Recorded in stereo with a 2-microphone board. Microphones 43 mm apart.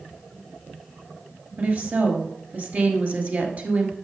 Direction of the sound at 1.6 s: 40° right (ahead or behind).